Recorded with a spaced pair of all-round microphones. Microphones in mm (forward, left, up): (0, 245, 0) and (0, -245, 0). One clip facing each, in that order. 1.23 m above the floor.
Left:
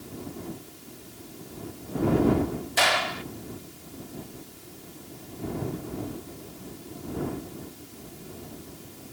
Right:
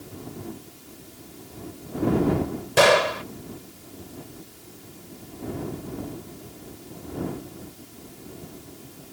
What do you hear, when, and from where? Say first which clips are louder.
2.8 s a gunshot: right 15 dB; 80° right